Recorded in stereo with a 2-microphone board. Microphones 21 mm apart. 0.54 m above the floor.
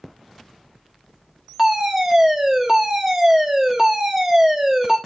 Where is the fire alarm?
15° right (ahead or behind), 1.6 m.